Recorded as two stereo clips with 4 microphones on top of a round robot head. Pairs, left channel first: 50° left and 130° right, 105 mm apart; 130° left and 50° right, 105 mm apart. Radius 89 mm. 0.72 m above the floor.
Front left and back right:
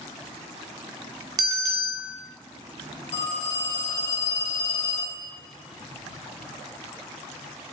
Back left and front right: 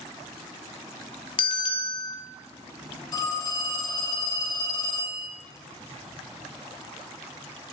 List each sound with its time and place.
1.4 s a bell: 175° left, 0.5 m
3.1 s a phone ringing: 75° left, 2.0 m